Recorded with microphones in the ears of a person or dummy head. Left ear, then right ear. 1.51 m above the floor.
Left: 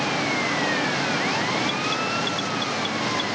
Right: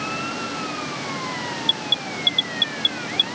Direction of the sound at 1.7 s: 85° right.